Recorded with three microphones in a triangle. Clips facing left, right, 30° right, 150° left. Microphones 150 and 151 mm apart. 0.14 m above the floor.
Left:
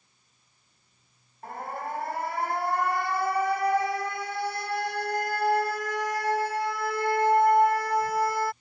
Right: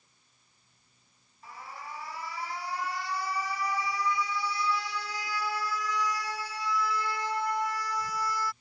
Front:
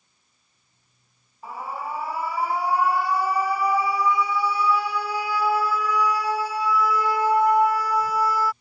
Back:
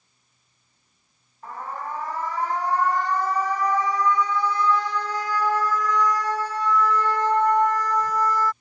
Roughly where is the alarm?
Ahead left.